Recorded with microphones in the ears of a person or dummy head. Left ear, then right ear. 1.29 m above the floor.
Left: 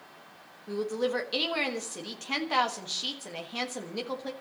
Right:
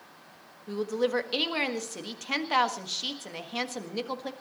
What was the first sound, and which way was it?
A woman speaking, 5° right (ahead or behind).